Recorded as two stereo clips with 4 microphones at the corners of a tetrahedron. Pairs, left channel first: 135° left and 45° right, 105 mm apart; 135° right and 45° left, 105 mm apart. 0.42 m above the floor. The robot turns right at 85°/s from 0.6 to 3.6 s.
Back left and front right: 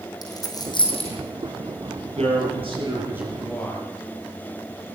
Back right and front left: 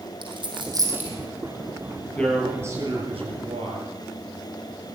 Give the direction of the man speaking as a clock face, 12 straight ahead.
2 o'clock.